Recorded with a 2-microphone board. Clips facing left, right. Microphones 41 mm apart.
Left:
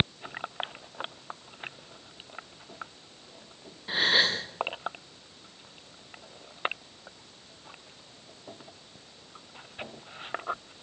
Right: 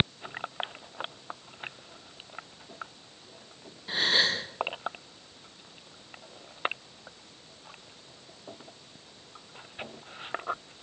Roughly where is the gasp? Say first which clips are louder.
Left 1 dB; centre.